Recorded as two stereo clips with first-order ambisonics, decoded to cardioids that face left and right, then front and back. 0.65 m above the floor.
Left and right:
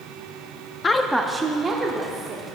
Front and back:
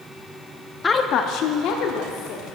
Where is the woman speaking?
55° left, 0.6 m; by 2.5 s 25° right, 1.9 m.